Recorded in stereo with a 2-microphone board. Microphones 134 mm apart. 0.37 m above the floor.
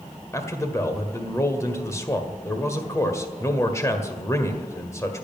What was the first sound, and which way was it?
A man speaking, 25° left (ahead or behind).